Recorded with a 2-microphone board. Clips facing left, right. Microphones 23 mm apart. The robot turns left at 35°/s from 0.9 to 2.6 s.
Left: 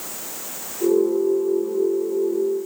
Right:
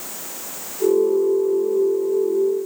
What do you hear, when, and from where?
Only background noise.